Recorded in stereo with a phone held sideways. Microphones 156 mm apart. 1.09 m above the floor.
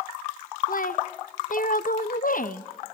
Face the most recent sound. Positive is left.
turn(degrees=60)  # may be behind; listen again after turning